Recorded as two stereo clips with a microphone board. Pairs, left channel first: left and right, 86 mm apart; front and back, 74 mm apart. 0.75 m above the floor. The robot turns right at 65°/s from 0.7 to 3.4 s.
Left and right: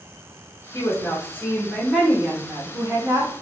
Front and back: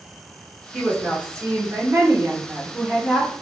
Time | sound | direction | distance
0.7 | a woman speaking | 110° left | 0.9 m